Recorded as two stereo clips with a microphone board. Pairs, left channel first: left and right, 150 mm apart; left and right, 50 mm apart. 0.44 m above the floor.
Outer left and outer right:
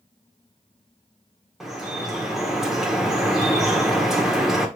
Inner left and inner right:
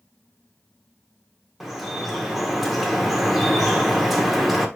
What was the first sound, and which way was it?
Dripping, 5° right (ahead or behind).